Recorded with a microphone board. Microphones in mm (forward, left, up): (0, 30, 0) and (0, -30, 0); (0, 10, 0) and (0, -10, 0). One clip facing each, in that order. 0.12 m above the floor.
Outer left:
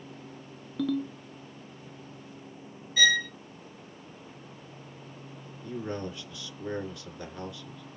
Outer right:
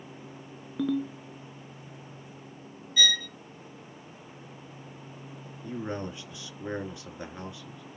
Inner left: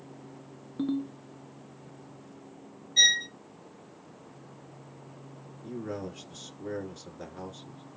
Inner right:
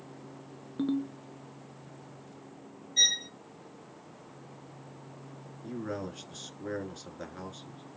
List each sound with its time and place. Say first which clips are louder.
0.8 s a ringtone: outer right 1 dB, even; 15° right (ahead or behind), 0.6 m
3.0 s a violin: outer left 4 dB, inner left 4 dB; 20° left (ahead or behind), 2.0 m
5.6 s a man speaking: even, even; 20° right (ahead or behind), 1.3 m